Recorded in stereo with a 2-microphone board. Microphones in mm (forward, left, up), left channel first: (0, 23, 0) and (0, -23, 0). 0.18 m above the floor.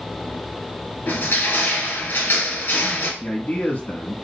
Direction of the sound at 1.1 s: 50° left (ahead or behind).